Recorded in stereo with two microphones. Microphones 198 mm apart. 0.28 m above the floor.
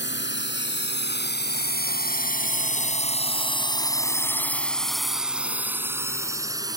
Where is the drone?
65° left (ahead or behind); by 6.8 s 20° right (ahead or behind).